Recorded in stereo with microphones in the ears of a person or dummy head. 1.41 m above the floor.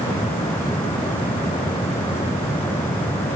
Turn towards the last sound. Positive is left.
No sound to turn to.